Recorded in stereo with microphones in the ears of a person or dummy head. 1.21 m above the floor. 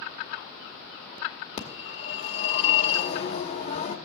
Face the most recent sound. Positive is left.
turn(degrees=35)  # may be behind; listen again after turning